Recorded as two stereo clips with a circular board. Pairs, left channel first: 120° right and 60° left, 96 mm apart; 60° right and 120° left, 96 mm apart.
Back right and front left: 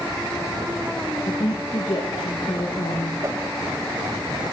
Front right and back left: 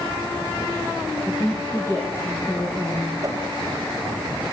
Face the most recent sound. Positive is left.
turn(degrees=105)